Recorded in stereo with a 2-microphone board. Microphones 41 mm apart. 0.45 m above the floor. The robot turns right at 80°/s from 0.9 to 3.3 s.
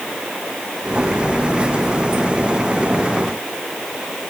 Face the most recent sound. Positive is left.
No sound to turn to.